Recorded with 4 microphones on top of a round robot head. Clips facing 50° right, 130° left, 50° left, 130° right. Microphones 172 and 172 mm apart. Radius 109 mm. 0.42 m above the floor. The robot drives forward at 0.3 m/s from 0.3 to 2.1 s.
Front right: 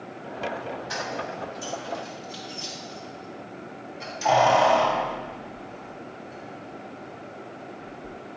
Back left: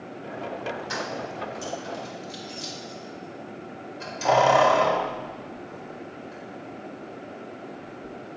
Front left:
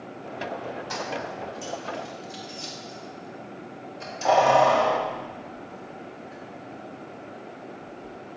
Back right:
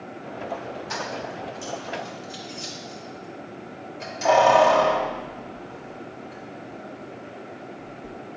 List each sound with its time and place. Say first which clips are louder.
0.9 s keys jangling: even, back right 1 dB; 135° left, 1.3 m; by 8.1 s 145° left, 1.5 m